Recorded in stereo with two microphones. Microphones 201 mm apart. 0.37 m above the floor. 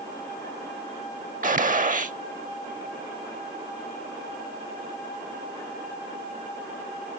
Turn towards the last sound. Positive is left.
turn(degrees=-45)  # may be behind; listen again after turning